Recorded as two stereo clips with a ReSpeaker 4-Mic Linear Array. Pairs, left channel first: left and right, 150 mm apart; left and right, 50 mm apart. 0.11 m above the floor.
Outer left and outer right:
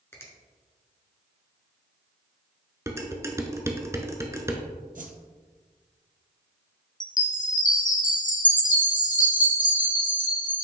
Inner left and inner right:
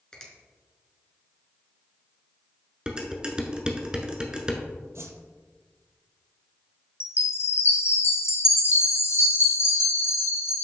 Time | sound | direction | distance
0.1 | a finger snap | 15° left (ahead or behind) | 1.4 m
2.9 | dishes clattering | 20° right (ahead or behind) | 0.8 m
5.0 | a whoosh | 65° right (ahead or behind) | 0.8 m
7.0 | a chime | 60° left (ahead or behind) | 1.2 m